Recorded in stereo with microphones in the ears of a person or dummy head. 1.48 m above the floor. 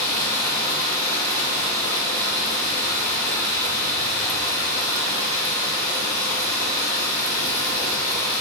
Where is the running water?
20° left (ahead or behind), 3 m.